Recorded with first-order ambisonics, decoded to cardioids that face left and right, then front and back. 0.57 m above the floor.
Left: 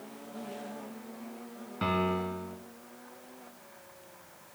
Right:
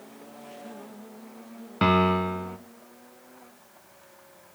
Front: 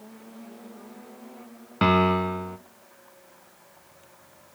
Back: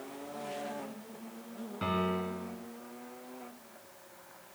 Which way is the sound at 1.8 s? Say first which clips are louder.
Right 8 dB, front 12 dB; 35° right.